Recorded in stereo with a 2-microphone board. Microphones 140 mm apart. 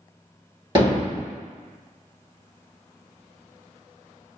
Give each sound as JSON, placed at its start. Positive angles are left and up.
{"t": 0.8, "sound": "hammering", "side_deg": -35, "distance_m": 1.7}